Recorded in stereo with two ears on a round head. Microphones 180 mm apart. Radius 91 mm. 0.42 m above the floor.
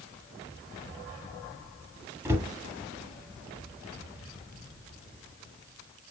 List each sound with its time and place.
2.2 s a cupboard door: 15° right (ahead or behind), 1.2 m